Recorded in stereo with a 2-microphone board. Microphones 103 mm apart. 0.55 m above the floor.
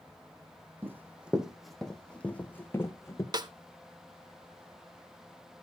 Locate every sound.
0.8 s running footsteps: 20° right (ahead or behind), 1.6 m; by 3.2 s 25° left (ahead or behind), 2.5 m
3.3 s a snare drum: 40° right (ahead or behind), 0.8 m